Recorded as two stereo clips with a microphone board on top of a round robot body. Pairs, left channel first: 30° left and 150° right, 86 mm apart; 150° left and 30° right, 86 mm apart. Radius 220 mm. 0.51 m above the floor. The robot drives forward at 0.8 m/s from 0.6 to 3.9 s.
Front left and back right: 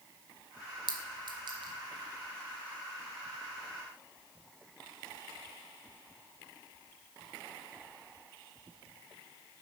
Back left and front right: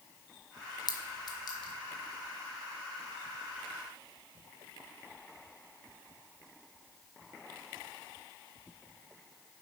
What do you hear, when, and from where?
0.9 s a clink: 175° right, 0.9 m